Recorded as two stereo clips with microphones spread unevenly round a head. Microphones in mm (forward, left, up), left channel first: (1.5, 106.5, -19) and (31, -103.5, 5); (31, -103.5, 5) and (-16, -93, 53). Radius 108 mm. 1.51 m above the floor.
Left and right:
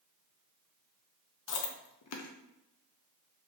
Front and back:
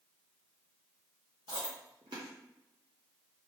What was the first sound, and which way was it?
Chewing, 115° left.